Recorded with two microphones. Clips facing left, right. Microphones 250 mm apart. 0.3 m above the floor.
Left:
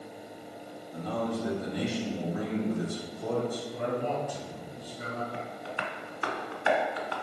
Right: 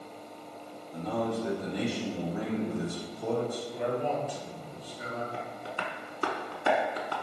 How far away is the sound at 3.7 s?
About 1.9 m.